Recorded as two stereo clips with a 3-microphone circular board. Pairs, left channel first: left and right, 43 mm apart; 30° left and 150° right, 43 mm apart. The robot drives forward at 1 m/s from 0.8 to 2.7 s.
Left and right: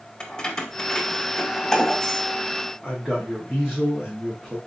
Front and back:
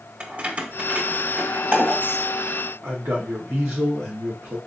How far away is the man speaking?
About 1.0 m.